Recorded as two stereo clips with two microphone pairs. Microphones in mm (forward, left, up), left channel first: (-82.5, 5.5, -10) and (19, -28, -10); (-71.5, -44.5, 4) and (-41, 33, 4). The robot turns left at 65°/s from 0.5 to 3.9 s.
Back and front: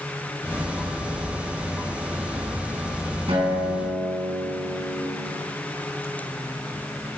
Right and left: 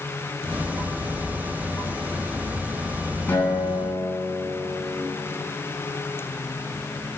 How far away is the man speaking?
No man speaking in this recording.